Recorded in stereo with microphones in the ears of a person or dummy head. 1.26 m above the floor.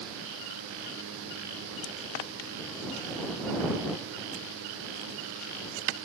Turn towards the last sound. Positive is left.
No sound to turn to.